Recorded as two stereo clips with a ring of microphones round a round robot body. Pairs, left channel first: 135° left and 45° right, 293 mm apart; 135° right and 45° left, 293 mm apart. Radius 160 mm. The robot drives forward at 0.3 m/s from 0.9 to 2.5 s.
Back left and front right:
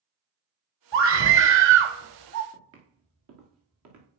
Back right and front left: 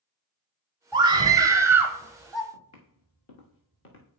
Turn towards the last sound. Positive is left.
turn(degrees=-80)